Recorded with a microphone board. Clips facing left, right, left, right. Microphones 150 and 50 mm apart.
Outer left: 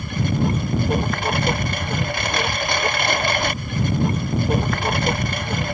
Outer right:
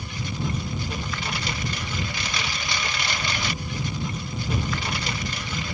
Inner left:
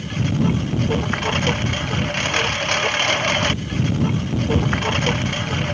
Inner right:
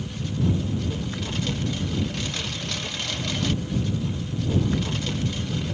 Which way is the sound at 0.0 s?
55° left (ahead or behind).